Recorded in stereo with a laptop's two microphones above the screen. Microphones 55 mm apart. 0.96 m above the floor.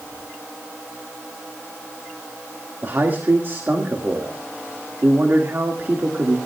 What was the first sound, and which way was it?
A man speaking, 45° right (ahead or behind).